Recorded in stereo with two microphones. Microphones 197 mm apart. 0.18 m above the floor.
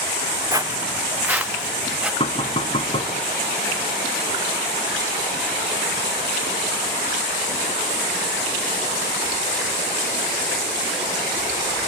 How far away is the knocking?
About 1.2 m.